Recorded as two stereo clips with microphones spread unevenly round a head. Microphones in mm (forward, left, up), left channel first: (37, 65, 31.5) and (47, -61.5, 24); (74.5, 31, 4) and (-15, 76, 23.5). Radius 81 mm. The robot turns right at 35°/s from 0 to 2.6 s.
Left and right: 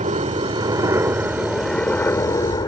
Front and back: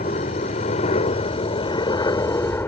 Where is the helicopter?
50° right; by 2.7 s 40° left.